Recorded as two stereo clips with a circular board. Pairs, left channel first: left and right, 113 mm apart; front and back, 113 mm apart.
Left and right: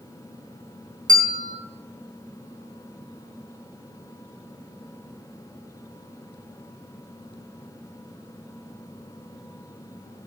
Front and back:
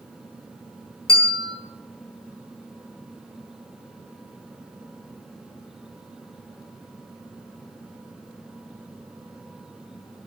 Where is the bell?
35° right, 2.5 m.